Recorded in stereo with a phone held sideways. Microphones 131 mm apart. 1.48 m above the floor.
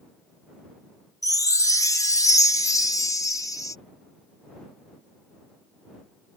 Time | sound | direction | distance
1.2 | a chime | 25° left (ahead or behind) | ?